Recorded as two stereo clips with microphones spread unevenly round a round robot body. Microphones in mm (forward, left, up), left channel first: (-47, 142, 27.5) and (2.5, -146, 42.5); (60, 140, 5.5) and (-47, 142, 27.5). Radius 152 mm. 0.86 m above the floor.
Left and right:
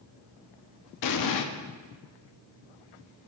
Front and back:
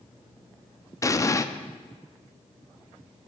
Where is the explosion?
70° left, 0.5 m.